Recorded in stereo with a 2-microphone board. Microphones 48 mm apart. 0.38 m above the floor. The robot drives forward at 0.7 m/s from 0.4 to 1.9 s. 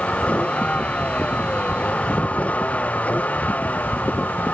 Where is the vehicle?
30° left (ahead or behind); by 4.5 s 35° left (ahead or behind).